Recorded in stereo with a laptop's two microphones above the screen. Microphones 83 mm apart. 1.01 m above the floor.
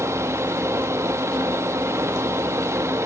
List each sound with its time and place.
0.0 s a fan: 35° right (ahead or behind), 1.1 m